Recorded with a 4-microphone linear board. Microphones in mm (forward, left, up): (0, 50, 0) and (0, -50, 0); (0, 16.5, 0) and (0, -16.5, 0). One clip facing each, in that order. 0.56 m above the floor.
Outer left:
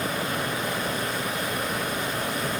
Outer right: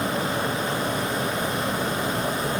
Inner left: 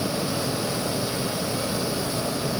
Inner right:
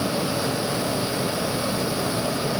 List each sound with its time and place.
Only background noise.